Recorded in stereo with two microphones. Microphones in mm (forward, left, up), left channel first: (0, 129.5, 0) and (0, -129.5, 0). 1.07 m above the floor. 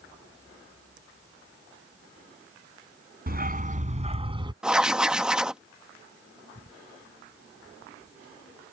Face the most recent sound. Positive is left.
turn(degrees=-5)  # may be behind; listen again after turning